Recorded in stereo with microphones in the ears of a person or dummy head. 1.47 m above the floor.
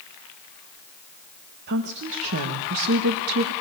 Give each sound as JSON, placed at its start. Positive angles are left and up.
{"t": 1.7, "sound": "a woman speaking", "side_deg": -55, "distance_m": 1.5}